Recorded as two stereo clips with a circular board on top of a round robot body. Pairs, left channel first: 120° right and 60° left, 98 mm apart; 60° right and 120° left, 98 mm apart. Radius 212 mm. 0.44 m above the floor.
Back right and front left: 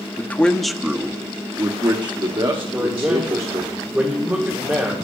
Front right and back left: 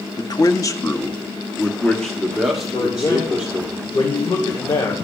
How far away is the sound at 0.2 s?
About 1.4 m.